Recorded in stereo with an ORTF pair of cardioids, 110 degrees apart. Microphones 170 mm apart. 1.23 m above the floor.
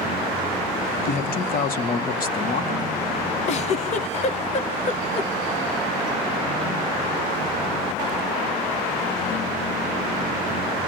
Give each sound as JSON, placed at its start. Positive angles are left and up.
{"t": 1.1, "sound": "a man speaking", "azimuth_deg": 55, "distance_m": 2.5}
{"t": 3.5, "sound": "a giggle", "azimuth_deg": 45, "distance_m": 1.2}